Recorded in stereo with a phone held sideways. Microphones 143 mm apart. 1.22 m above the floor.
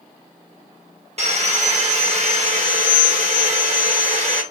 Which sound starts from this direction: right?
Sawing, at 1.2 s.